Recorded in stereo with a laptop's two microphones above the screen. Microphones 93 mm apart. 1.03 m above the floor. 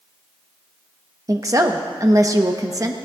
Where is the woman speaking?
35° right (ahead or behind), 1.1 m.